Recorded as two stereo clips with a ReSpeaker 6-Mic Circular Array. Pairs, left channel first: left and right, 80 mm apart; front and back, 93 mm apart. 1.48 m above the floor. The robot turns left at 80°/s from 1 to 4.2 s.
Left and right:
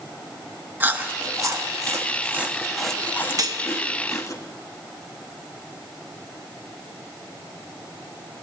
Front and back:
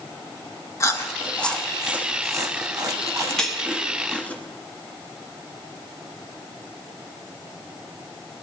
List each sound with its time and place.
0.8 s chewing: 35° right, 1.0 m; by 4.4 s 65° left, 1.0 m
3.4 s cutlery clinking: 80° right, 0.9 m; by 3.6 s 100° right, 0.9 m